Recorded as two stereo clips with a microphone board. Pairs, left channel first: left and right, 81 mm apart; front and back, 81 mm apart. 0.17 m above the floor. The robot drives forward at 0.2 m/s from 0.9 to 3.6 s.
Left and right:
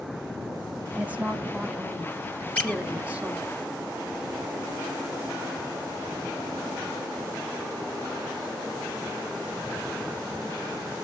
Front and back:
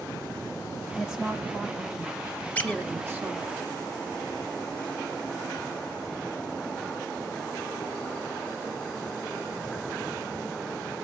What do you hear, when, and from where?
0.9 s a woman speaking: 110° right, 1.0 m; by 3.5 s 155° right, 1.2 m
2.5 s a squeak: 40° left, 0.8 m; by 2.8 s 50° left, 0.8 m